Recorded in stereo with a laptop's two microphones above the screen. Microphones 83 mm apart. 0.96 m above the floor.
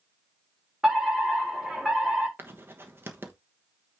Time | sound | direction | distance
0.8 | a fire alarm | 5° right (ahead or behind) | 3.5 m
2.4 | writing | 25° right (ahead or behind) | 1.1 m